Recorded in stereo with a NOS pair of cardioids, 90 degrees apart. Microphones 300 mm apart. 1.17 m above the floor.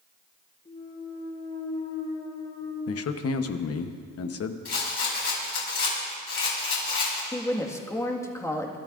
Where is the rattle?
50° left, 6 m.